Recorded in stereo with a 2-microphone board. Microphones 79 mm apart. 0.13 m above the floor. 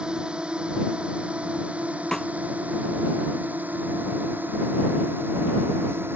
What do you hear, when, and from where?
0.0 s a drone: 10° right (ahead or behind); by 6.2 s 30° right (ahead or behind)
2.1 s a snare drum: 5° left (ahead or behind)